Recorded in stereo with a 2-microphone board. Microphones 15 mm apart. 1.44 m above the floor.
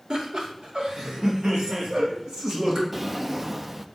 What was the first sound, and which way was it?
Laughter, 80° right.